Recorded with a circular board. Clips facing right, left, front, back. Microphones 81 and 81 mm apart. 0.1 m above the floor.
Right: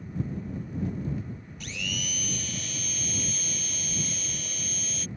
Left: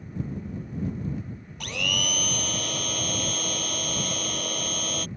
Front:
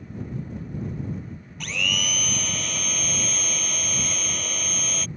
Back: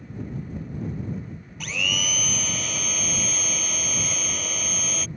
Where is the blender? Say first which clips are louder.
Left 7 dB, even; 95° left.